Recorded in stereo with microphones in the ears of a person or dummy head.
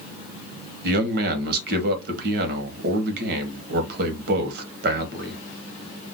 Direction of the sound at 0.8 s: 55° right (ahead or behind).